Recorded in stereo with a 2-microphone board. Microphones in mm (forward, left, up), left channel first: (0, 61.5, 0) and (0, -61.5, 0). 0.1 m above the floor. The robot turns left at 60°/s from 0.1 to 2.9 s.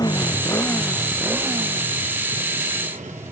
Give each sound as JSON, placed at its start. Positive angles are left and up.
{"t": 0.0, "sound": "a motorcycle", "side_deg": 30}